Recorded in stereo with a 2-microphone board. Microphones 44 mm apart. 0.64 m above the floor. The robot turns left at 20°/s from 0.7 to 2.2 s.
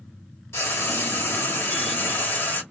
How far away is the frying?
About 1.2 m.